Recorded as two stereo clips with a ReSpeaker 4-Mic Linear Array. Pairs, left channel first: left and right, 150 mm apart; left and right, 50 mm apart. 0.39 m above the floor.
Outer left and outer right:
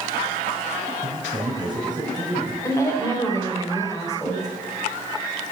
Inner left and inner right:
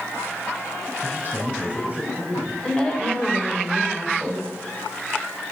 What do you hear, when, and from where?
1.0 s a man speaking: 35° right (ahead or behind), 3.5 m; by 2.5 s 25° right (ahead or behind), 4 m
2.6 s a woman speaking: 20° left (ahead or behind), 1.9 m